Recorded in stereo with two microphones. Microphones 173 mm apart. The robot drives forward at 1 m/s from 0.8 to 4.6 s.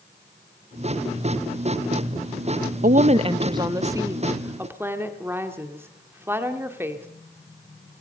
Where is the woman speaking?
55° right (ahead or behind), 0.6 m; by 7.1 s 15° right (ahead or behind), 2 m.